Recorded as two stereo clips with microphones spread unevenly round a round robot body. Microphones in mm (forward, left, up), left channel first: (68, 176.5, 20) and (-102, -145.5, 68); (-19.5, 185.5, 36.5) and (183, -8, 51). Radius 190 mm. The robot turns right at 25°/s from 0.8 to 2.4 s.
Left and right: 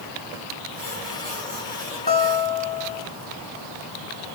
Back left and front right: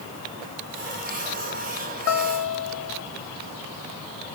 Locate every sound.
2.1 s a guitar: 130° left, 1.4 m; by 3.0 s 140° left, 1.4 m